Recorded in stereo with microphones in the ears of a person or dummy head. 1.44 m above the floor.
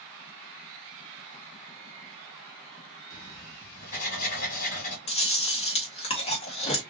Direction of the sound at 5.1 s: 30° left (ahead or behind).